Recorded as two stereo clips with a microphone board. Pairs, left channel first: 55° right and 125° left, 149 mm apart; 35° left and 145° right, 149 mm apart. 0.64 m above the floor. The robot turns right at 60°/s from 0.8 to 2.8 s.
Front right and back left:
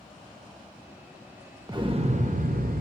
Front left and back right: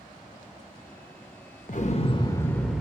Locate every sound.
1.7 s an explosion: 60° left, 0.6 m; by 2.8 s 130° left, 0.6 m